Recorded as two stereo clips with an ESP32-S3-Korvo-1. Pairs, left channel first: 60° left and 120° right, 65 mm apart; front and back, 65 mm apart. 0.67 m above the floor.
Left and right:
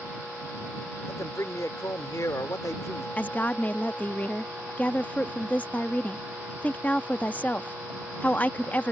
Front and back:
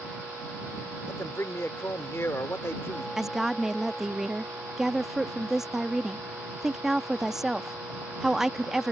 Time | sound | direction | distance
1.1 | a man speaking | 40° left | ?
3.2 | a woman speaking | 100° left | ?